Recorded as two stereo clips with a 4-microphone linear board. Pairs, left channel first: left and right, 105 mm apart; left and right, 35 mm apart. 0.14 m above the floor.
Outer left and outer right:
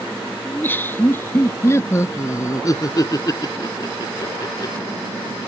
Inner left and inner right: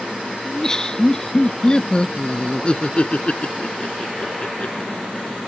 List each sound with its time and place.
0.5 s laughter: 20° left (ahead or behind); by 4.9 s 35° left (ahead or behind)